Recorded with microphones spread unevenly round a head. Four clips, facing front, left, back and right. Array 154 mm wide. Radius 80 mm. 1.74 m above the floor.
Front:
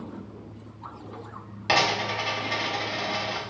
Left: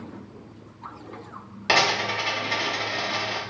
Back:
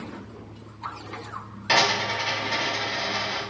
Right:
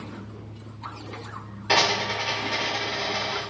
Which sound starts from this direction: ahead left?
A dropped coin, at 1.7 s.